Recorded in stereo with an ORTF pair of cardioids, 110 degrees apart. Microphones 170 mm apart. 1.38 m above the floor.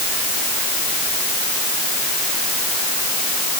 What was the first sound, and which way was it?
Only background noise.